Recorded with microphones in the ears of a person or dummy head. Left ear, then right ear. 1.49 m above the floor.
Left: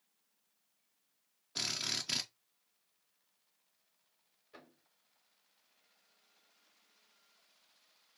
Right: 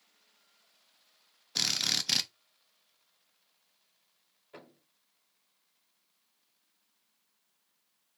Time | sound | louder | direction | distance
1.6 | a drill | right 7 dB | 20° right (ahead or behind) | 0.6 m
4.5 | a thud | right 6 dB | 20° right (ahead or behind) | 1.8 m